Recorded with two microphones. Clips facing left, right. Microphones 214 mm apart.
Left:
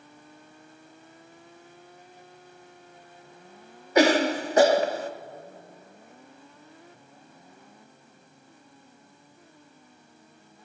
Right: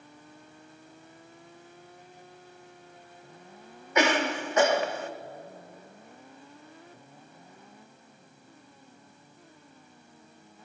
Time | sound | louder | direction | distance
4.0 | a cough | left 6 dB | 35° left (ahead or behind) | 0.7 m